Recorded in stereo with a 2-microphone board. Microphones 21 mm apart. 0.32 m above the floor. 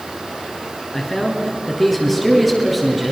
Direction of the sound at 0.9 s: 10° left (ahead or behind).